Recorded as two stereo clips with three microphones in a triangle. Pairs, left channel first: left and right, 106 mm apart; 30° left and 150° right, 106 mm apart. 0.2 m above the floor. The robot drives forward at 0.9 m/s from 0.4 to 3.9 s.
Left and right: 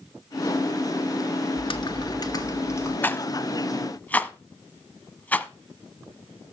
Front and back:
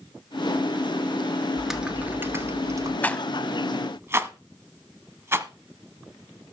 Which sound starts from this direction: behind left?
Typing on a keyboard, at 1.6 s.